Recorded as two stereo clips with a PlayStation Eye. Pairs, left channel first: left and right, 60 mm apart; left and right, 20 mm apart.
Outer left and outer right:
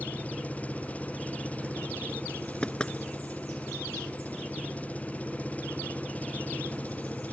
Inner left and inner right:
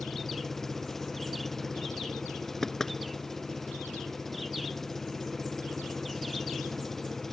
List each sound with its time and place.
0.0 s an engine running: 20° left (ahead or behind)
2.6 s knocking: 15° left (ahead or behind)